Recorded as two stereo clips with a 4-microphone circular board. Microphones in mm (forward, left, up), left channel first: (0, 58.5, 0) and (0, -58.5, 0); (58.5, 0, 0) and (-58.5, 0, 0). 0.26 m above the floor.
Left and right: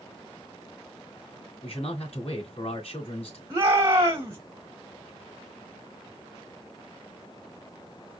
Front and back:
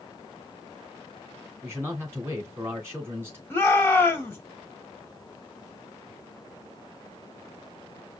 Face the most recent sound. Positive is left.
turn(degrees=-55)